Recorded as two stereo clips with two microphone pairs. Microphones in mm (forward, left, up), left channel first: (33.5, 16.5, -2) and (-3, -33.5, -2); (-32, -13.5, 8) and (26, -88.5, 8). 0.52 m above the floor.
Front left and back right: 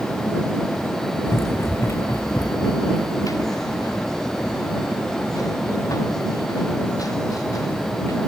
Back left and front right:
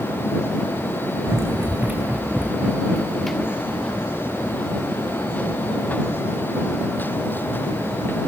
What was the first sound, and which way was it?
Running footsteps, 5° left.